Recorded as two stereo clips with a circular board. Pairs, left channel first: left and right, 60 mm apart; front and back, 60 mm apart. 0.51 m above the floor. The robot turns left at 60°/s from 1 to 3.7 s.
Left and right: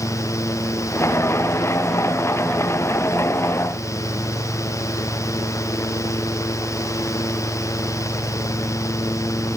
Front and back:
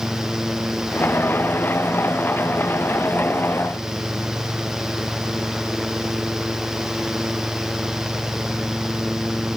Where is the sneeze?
I don't hear a sneeze.